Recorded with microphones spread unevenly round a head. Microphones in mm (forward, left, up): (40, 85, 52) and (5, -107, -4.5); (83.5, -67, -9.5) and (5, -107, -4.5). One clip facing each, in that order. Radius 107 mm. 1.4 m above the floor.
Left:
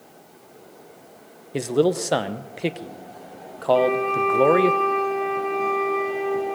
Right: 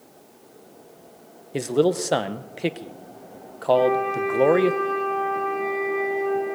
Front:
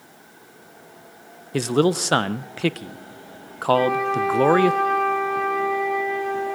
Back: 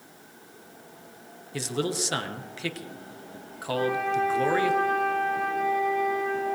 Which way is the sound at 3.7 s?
35° left.